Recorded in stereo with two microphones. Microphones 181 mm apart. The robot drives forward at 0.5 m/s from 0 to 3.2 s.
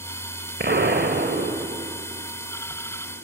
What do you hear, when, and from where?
0.6 s an explosion: 75° right (ahead or behind), 1.5 m; by 2.1 s 60° right (ahead or behind), 1.7 m